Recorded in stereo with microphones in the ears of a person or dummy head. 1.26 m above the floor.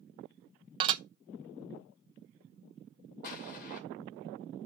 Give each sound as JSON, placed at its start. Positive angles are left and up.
{"t": 0.8, "sound": "dishes clattering", "side_deg": -30, "distance_m": 0.5}
{"t": 3.2, "sound": "an explosion", "side_deg": 50, "distance_m": 2.5}